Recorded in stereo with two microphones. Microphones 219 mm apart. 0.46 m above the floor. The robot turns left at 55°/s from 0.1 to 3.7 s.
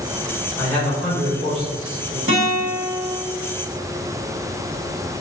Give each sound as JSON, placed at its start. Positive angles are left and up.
{"t": 0.6, "sound": "a man speaking", "azimuth_deg": 20, "distance_m": 1.8}
{"t": 2.3, "sound": "a guitar", "azimuth_deg": -85, "distance_m": 1.8}